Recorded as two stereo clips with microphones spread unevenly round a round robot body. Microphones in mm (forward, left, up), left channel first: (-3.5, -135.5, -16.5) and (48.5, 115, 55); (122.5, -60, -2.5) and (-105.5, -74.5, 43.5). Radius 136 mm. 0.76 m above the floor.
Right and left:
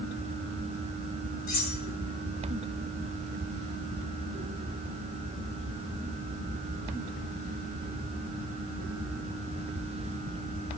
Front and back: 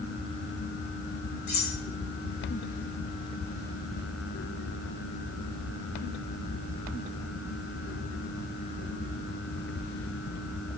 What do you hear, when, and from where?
1.5 s cutlery clinking: 45° right, 5 m